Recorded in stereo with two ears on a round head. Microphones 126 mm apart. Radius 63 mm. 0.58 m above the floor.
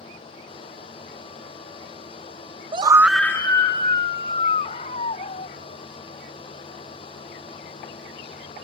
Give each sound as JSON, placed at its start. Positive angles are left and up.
{"t": 2.7, "sound": "a scream", "side_deg": -35}